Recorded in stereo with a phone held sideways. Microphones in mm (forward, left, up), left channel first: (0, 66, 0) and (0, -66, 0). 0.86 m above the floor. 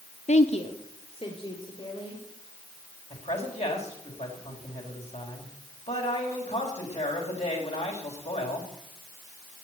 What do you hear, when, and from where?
0.3 s a woman speaking: 60° left (ahead or behind), 0.9 m; by 2.2 s 40° left (ahead or behind), 3.5 m
3.1 s a man speaking: 55° left (ahead or behind), 4.5 m